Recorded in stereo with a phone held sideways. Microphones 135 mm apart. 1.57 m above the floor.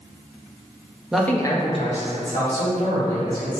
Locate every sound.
1.1 s a man speaking: 5° right (ahead or behind), 0.6 m; by 3.6 s 75° left (ahead or behind), 2.5 m